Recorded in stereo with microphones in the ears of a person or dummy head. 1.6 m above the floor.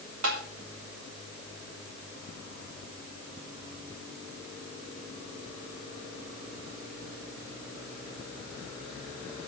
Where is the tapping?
80° right, 4 m.